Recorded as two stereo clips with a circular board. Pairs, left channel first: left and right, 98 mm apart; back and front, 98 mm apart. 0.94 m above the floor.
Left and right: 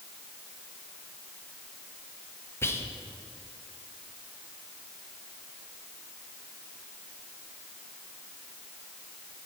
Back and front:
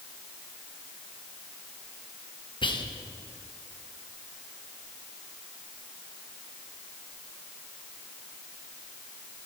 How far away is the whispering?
About 0.9 m.